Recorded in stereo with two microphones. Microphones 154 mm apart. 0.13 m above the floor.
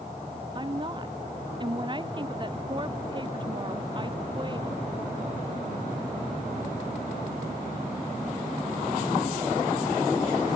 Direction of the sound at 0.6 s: 30° right (ahead or behind).